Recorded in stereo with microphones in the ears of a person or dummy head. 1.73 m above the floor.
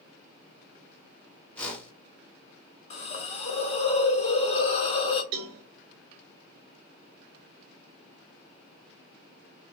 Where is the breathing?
I don't hear breathing.